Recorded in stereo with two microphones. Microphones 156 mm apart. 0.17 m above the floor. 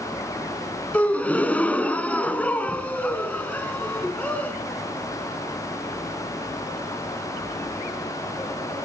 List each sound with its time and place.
0.9 s a gasp: 10° left (ahead or behind), 0.9 m